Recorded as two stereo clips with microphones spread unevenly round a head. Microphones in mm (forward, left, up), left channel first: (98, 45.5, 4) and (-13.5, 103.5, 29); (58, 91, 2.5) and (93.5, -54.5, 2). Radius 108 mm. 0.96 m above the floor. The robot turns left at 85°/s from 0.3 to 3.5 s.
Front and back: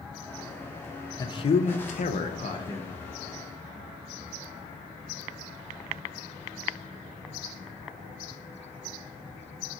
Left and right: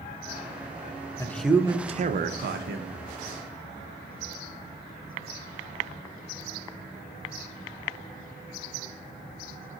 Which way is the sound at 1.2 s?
35° left.